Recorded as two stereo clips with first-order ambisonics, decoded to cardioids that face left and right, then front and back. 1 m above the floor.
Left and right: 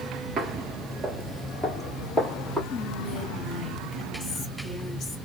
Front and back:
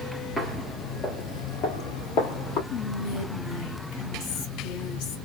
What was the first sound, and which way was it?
Footsteps, 80° right.